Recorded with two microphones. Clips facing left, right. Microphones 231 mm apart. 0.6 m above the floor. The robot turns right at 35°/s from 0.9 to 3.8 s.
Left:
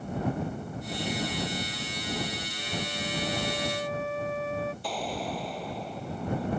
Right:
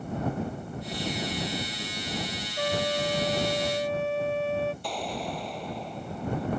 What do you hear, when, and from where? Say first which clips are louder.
2.6 s a trumpet: right 11 dB; 75° right; by 4.7 s 30° right
4.8 s an explosion: even; centre (ahead or behind)